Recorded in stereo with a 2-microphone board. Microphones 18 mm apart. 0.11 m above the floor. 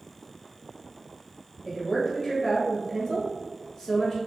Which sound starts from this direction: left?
A woman speaking, at 1.6 s.